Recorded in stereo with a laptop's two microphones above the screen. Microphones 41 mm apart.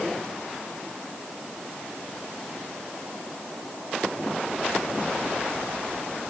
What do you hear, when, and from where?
Only background noise.